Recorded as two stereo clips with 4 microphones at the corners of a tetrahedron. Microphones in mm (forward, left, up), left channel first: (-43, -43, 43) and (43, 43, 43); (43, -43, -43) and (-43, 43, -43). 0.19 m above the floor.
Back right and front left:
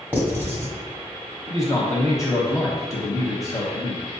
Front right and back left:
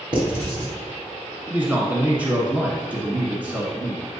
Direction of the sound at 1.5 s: 165° right.